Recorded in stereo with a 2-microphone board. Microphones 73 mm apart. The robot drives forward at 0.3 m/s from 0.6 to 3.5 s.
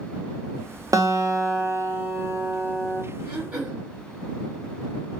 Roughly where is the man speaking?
No man speaking in this recording.